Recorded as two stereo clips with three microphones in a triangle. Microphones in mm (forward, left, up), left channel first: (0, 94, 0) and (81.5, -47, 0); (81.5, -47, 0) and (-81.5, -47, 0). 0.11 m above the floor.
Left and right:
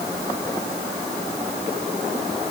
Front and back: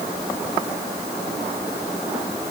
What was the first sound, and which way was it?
Only background noise.